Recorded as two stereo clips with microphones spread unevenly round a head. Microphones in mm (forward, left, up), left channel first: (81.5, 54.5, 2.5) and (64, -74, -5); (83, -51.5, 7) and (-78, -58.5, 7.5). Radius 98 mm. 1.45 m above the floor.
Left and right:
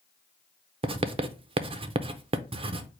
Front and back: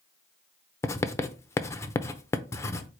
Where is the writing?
65° right, 0.6 m.